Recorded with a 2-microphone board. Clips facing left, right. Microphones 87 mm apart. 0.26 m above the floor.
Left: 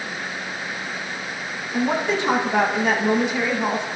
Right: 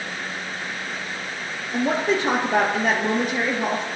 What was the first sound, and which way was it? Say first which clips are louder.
A woman speaking: even; 40° right (ahead or behind).